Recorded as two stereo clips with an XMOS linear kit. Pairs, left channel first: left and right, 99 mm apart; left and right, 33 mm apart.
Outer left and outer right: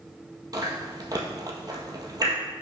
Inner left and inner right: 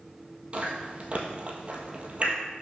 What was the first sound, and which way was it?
Chewing, 40° right (ahead or behind).